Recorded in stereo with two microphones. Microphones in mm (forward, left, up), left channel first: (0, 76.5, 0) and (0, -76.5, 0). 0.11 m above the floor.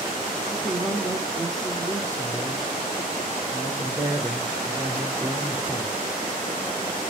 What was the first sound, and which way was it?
A man speaking, 25° right (ahead or behind).